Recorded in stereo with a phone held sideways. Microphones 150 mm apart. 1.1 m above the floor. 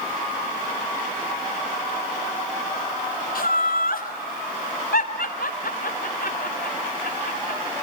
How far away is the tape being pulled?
No tape being pulled in this recording.